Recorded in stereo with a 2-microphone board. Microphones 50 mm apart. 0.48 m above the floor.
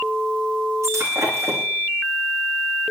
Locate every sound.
0.8 s breaking glass: 75° right (ahead or behind), 5.5 m